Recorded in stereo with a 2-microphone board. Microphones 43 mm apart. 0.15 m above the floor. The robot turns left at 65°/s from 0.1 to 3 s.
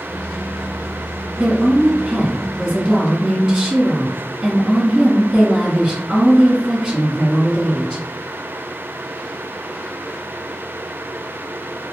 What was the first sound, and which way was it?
A woman speaking, 65° right.